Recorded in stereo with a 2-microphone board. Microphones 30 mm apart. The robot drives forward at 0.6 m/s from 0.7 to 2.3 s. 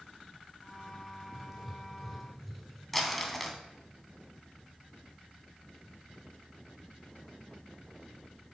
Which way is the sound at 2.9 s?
5° left (ahead or behind).